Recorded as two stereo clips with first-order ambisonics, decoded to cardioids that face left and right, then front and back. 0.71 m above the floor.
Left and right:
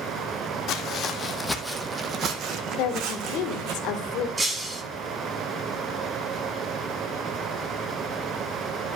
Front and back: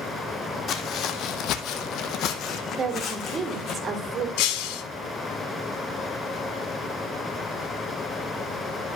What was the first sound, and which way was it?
Footsteps, 50° left.